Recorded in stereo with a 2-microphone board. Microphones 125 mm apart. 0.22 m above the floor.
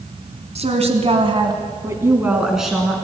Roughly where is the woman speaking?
Right.